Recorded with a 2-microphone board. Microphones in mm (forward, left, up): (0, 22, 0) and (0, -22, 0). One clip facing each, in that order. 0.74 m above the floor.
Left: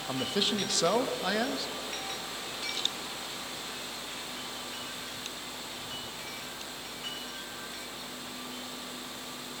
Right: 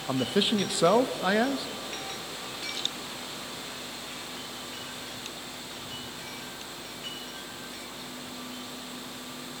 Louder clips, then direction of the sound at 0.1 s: Right 5 dB; 20° right (ahead or behind).